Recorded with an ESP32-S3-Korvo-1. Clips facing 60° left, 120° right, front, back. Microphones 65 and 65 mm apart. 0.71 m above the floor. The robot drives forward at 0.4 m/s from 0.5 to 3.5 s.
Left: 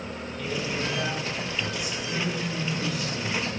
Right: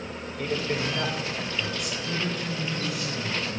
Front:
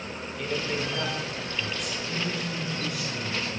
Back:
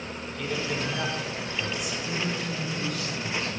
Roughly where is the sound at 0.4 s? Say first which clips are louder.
Right 2 dB, even; right.